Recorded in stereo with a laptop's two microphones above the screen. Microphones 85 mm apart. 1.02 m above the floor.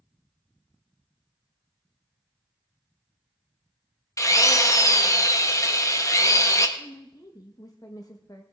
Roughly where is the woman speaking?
Left.